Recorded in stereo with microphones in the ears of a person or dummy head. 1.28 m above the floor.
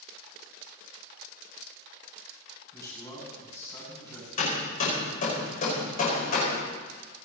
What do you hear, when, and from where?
2.7 s a man speaking: 15° left (ahead or behind), 8 m
4.4 s hammering: 45° left (ahead or behind), 6 m